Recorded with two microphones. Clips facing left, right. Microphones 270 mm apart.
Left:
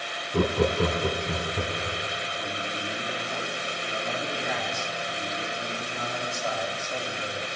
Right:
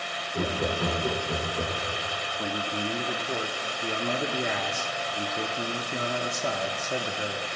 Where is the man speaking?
50° right (ahead or behind), 0.9 m.